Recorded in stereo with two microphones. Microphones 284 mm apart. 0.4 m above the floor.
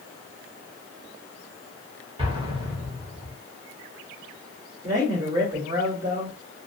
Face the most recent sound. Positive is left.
turn(degrees=-25)  # may be behind; listen again after turning